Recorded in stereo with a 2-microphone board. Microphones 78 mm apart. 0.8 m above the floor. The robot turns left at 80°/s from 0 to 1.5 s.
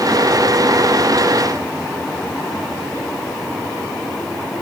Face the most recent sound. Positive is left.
No sound to turn to.